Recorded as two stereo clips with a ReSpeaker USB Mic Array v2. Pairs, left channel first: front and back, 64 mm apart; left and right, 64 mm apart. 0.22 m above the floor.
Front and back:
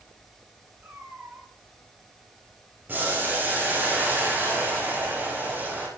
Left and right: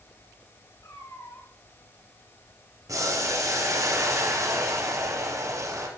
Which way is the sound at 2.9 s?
120° right.